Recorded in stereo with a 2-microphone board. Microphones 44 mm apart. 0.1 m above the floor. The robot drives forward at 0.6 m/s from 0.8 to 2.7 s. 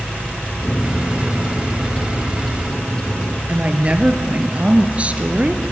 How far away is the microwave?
About 1.6 m.